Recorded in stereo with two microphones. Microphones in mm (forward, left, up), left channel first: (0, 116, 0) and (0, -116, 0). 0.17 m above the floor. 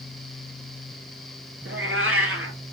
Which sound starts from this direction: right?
A cat meowing, at 1.6 s.